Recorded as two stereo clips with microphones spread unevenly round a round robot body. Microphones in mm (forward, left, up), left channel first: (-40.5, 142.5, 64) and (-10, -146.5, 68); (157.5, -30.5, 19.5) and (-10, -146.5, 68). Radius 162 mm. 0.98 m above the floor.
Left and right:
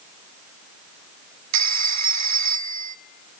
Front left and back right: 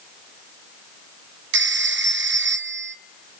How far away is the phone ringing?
About 1.2 m.